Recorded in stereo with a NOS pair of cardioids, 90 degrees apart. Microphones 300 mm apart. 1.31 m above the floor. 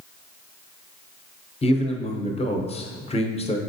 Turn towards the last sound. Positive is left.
turn(degrees=20)